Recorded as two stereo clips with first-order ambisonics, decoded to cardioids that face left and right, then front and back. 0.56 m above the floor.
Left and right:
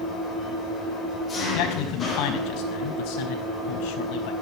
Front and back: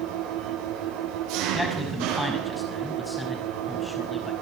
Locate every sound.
0.0 s an engine running: 160° left, 6 m
1.5 s a man speaking: 85° left, 5 m